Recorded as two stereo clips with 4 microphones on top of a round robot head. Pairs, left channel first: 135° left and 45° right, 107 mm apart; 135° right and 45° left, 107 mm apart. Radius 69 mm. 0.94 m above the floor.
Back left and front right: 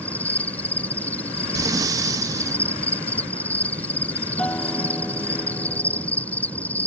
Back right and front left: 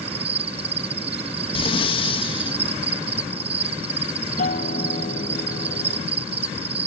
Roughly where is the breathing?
Right.